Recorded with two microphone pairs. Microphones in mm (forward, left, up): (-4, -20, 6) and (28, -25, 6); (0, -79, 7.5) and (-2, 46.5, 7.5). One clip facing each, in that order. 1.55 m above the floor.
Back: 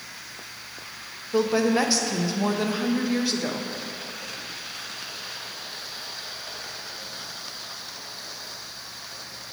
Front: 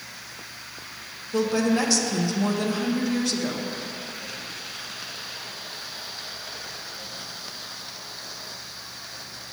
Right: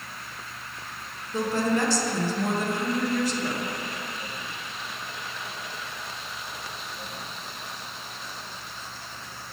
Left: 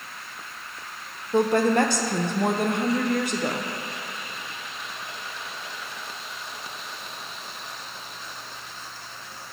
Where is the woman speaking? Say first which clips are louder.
Back 1 dB, left 5 dB; 100° left, 0.6 m.